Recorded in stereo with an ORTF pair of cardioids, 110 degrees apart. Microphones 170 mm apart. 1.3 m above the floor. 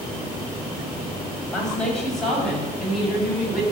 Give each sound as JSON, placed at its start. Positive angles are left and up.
{"t": 1.5, "sound": "a woman speaking", "azimuth_deg": 5, "distance_m": 7.0}